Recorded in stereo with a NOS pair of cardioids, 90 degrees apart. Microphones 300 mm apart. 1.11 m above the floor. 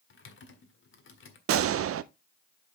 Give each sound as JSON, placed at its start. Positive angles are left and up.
{"t": 0.1, "sound": "typing on a keyboard", "azimuth_deg": 40, "distance_m": 1.7}
{"t": 1.5, "sound": "a gunshot", "azimuth_deg": -50, "distance_m": 0.5}